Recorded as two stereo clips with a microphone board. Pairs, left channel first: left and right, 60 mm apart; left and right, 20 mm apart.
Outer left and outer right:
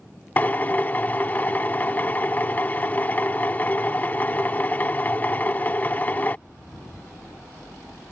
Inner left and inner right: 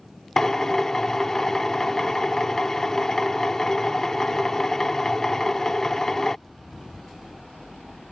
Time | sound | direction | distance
0.4 | a drill | 30° left (ahead or behind) | ?